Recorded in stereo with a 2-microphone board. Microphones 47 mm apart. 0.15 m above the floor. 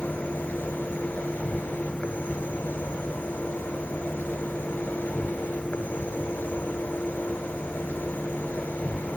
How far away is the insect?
About 1.2 m.